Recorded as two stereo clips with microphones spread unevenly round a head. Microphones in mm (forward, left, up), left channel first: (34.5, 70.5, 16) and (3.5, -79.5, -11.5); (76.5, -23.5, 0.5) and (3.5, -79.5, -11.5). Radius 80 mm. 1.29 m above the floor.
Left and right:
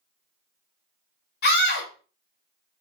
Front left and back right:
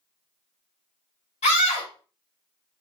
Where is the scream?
60° left, 1.3 m.